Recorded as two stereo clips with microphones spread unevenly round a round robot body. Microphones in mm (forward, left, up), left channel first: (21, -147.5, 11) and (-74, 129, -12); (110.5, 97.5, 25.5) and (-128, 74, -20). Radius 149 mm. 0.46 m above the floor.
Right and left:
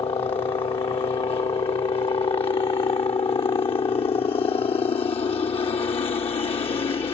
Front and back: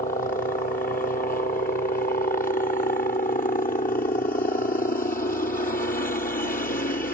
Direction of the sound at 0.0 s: 15° right.